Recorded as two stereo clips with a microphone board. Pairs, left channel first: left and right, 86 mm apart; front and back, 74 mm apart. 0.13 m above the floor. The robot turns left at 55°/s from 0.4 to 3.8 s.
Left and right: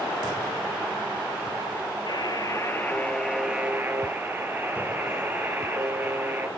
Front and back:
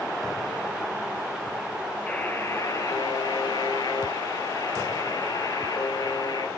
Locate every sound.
2.1 s a buzzer: 70° left, 1.0 m; by 6.5 s 25° right, 1.0 m